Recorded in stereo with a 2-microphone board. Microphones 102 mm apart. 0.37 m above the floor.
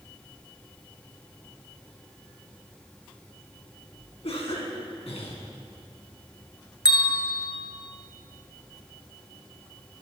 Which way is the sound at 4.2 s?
75° left (ahead or behind).